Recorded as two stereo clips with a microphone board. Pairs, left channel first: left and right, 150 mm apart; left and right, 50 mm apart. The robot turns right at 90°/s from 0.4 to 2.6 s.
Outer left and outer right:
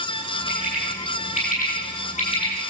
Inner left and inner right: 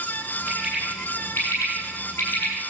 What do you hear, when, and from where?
0.5 s a bird: 30° right (ahead or behind), 9.5 m; by 2.5 s 25° left (ahead or behind), 9.5 m